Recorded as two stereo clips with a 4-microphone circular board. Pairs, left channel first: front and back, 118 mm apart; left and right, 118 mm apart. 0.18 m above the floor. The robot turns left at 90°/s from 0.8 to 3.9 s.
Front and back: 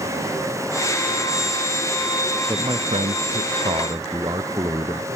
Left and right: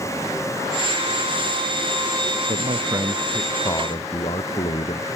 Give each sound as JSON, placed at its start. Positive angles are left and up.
{"t": 2.5, "sound": "a man speaking", "azimuth_deg": -105}